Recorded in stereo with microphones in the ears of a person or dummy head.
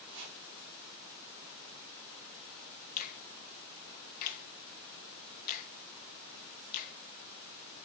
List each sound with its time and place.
0.1 s chopping: 60° right (ahead or behind), 5.5 m
3.0 s a finger snap: 45° left (ahead or behind), 0.9 m